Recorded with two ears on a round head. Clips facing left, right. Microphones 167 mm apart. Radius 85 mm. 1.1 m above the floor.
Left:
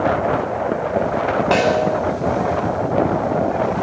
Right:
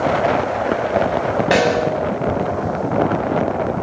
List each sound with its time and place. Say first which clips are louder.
1.5 s a snare drum: even; 15° right (ahead or behind), 10 m